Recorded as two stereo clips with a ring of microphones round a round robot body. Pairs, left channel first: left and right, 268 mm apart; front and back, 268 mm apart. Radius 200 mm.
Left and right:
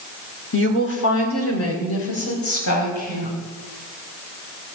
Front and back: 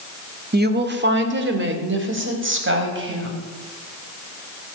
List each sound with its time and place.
0.5 s a woman speaking: 130° left, 1.8 m; by 3.4 s 140° left, 5.5 m